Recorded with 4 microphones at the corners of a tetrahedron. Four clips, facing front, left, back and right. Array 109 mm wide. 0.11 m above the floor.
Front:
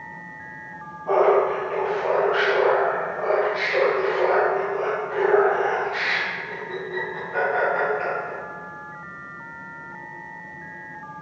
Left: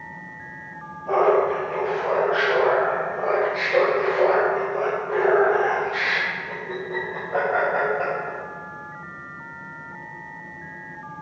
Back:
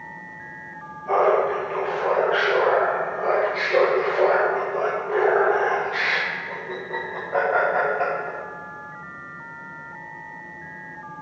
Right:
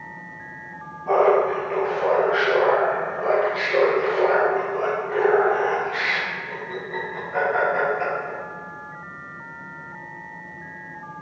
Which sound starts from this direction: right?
Laughter, at 1.1 s.